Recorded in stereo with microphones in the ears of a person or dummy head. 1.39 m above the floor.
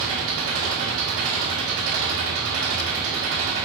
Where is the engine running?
75° right (ahead or behind), 2.0 m.